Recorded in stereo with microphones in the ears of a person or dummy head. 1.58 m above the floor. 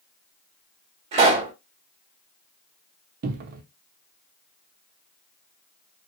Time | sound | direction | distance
1.1 | a pop | 30° right (ahead or behind) | 1.1 m
3.2 | a cupboard door | 50° right (ahead or behind) | 0.6 m